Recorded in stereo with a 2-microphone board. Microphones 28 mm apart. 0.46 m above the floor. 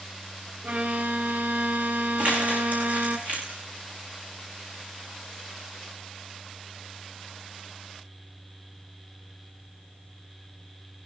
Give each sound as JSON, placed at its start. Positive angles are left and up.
{"t": 0.6, "sound": "a violin", "side_deg": -80, "distance_m": 1.1}
{"t": 2.2, "sound": "crumpling", "side_deg": -50, "distance_m": 5.5}